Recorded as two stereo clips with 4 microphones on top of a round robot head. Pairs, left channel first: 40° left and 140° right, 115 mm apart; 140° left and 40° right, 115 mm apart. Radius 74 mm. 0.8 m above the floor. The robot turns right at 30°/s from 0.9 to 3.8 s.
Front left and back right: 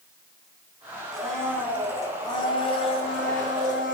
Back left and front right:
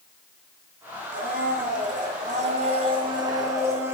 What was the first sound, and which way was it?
A blender, 50° right.